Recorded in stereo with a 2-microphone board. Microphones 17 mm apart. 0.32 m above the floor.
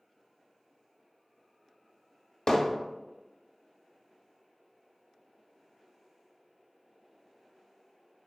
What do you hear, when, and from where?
2.5 s hammering: 35° left (ahead or behind), 0.6 m